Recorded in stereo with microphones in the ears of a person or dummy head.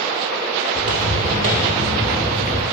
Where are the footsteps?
35° right (ahead or behind), 1.9 m; by 2.6 s 5° right (ahead or behind), 1.6 m.